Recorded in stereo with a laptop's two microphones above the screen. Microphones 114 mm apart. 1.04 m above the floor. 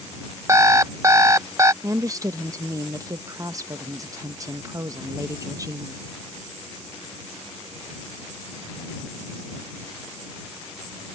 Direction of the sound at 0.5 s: 25° right (ahead or behind).